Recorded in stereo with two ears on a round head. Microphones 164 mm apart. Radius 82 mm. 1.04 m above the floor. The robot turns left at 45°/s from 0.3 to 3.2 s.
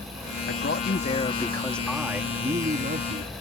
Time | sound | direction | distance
0.5 | a man speaking | 65° left | ?